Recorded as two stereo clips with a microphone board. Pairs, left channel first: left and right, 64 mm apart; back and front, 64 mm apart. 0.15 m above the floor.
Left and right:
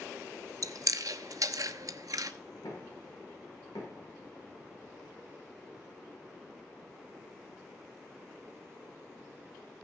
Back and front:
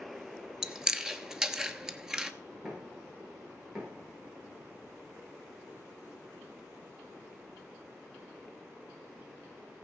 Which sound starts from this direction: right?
Chewing, at 0.6 s.